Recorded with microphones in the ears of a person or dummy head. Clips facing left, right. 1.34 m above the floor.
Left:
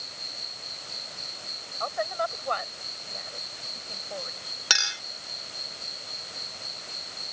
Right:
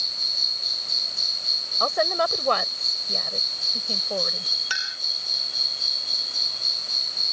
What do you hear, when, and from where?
0.0 s an insect: 75° right (ahead or behind)
1.8 s a woman speaking: 65° right (ahead or behind)
4.7 s a clink: 70° left (ahead or behind)